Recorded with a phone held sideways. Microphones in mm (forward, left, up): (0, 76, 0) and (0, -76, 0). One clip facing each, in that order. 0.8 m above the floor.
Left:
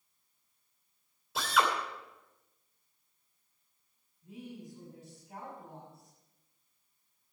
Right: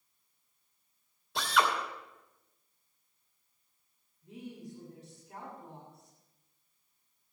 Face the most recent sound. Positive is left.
turn(degrees=0)  # may be behind; listen again after turning